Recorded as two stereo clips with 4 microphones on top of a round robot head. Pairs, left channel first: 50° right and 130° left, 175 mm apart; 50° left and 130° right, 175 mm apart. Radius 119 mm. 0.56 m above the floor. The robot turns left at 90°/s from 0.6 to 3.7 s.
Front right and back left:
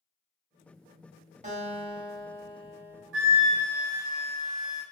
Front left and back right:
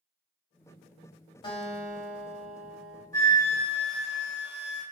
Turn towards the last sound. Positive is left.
turn(degrees=70)